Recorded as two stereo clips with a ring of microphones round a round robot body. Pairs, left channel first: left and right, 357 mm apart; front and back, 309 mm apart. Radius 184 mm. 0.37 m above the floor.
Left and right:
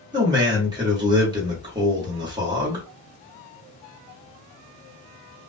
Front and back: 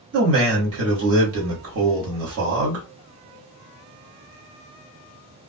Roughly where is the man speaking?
Behind.